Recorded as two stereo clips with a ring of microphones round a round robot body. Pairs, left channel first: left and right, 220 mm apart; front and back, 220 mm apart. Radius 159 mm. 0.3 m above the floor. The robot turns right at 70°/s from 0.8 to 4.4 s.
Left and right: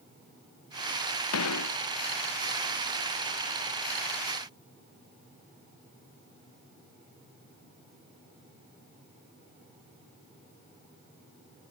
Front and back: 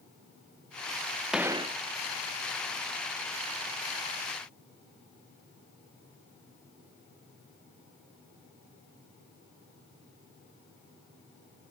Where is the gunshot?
90° left; by 1.8 s 120° left.